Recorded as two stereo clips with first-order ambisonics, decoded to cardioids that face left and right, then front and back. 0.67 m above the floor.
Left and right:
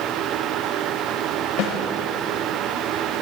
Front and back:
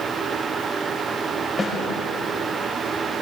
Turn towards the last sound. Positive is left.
turn(degrees=75)